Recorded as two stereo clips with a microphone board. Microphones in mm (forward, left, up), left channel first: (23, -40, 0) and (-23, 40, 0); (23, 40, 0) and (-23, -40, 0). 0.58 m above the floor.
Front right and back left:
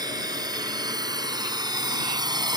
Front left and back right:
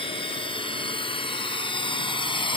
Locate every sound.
0.0 s a drone: 80° left